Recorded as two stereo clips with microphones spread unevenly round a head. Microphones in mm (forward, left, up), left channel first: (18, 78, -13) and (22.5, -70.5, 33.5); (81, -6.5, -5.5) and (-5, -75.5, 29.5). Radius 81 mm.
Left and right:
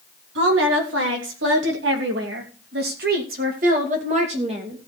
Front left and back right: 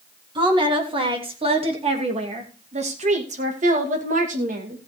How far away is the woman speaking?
About 3.5 m.